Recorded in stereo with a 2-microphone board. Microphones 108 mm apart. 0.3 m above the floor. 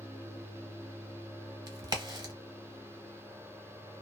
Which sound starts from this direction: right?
A crack, at 1.7 s.